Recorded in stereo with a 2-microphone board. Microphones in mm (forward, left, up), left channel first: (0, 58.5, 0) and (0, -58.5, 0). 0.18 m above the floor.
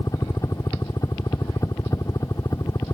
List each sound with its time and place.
0.0 s a helicopter: 30° left (ahead or behind)